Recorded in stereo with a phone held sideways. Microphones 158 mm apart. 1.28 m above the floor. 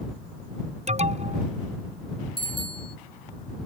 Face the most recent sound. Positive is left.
turn(degrees=35)  # may be behind; listen again after turning